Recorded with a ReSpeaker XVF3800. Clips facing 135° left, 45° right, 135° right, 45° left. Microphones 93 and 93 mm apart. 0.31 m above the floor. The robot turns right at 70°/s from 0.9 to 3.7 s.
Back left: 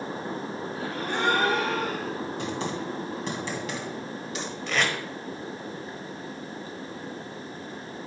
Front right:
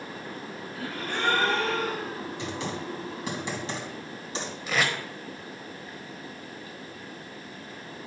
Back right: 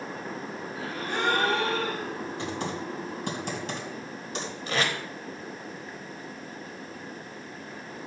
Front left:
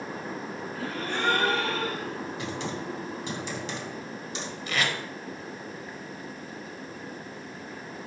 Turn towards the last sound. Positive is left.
turn(degrees=-125)